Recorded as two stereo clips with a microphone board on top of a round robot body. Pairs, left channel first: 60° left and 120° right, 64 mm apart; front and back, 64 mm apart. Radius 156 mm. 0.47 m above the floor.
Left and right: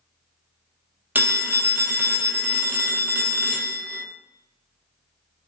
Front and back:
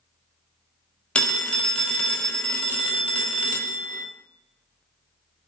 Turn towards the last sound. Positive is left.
turn(degrees=-70)